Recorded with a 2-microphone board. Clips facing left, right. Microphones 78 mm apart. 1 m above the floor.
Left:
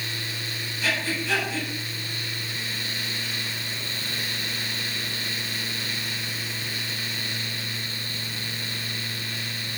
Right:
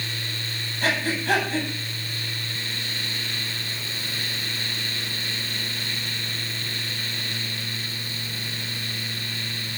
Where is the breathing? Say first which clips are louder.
Right 3 dB; 60° right (ahead or behind), 8.5 m.